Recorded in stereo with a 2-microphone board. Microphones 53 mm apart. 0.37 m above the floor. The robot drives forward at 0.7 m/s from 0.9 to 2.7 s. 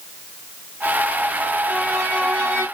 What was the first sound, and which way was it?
A violin, 40° right (ahead or behind).